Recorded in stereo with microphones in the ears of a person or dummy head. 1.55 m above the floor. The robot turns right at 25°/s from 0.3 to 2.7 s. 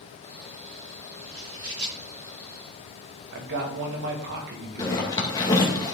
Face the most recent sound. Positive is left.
turn(degrees=20)  # may be behind; listen again after turning